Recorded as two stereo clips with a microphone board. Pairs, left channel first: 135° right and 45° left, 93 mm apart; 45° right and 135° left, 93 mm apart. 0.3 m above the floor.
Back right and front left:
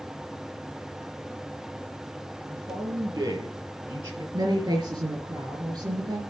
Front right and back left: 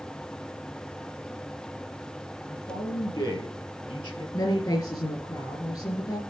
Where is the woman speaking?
Straight ahead, 4.5 m.